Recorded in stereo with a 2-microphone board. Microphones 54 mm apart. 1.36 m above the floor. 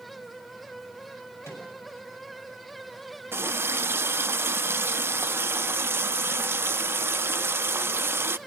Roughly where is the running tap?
Right.